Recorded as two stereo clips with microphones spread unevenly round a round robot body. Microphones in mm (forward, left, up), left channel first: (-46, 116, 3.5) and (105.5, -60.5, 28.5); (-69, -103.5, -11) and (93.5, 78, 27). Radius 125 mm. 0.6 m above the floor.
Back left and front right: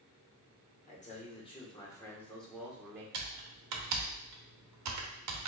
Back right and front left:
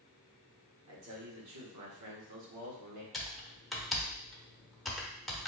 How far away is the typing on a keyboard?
About 0.8 m.